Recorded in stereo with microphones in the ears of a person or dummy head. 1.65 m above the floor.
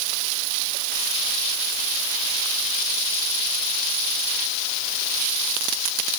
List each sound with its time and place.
Only background noise.